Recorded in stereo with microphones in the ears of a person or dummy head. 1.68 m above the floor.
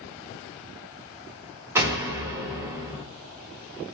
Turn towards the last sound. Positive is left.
turn(degrees=-20)  # may be behind; listen again after turning